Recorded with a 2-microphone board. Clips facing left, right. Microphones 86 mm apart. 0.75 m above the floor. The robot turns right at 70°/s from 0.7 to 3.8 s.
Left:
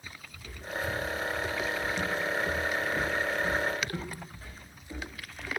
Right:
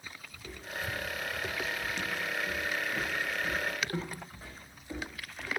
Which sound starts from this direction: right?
Footsteps, at 0.3 s.